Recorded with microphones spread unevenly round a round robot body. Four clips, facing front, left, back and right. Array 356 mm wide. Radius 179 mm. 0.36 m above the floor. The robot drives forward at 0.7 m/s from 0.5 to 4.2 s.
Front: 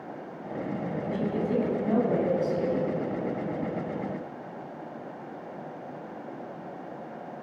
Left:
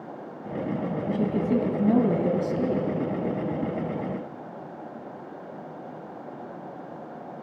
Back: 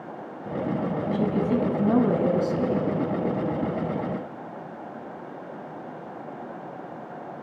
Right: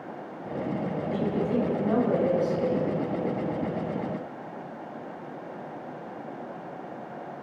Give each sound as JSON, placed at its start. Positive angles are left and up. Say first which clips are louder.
{"t": 1.1, "sound": "a woman speaking", "louder": "left 3 dB, back 3 dB", "azimuth_deg": 110, "distance_m": 3.0}